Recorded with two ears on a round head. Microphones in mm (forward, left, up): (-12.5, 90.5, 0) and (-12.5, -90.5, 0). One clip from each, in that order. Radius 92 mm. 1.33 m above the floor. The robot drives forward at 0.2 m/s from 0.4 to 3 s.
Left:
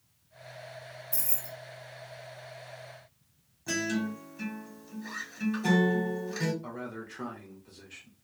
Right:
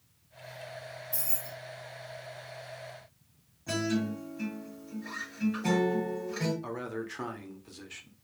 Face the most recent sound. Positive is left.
turn(degrees=-20)  # may be behind; listen again after turning